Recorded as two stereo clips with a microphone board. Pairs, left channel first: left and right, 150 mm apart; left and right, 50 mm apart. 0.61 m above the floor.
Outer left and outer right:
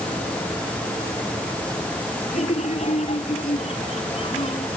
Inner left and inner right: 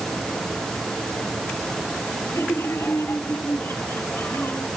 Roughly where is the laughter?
Left.